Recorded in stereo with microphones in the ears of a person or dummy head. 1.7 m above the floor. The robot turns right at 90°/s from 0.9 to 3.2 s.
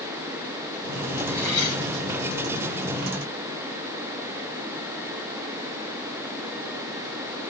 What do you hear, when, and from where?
1.3 s cutlery clinking: straight ahead, 4.5 m; by 1.8 s 45° left, 4.5 m